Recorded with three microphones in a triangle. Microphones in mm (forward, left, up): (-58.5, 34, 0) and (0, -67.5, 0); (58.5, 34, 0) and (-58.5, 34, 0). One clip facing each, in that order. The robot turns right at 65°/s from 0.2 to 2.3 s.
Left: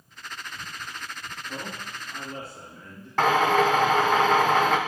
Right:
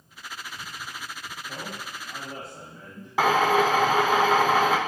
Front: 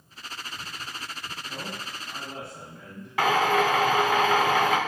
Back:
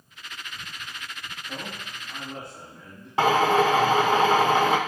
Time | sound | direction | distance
1.5 | a man speaking | 135° right | 3.5 m
3.2 | a drill | 140° right | 1.0 m